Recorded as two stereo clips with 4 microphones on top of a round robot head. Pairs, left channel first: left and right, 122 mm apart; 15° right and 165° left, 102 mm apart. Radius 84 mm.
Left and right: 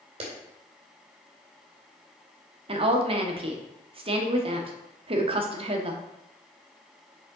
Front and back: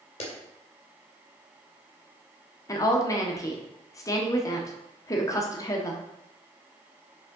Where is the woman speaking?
65° right, 1.2 m.